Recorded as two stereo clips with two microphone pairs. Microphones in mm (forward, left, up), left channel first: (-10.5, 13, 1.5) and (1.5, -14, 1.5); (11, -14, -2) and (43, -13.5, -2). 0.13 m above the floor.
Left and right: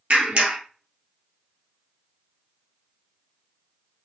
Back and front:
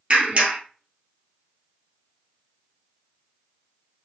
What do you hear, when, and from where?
0.1 s a clap: 50° right, 1.9 m